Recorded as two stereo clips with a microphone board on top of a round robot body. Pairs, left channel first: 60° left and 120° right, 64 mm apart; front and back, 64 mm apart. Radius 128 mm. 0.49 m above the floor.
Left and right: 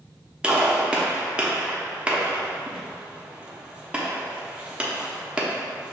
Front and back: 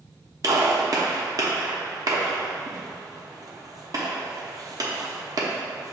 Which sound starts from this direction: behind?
A gunshot, at 0.4 s.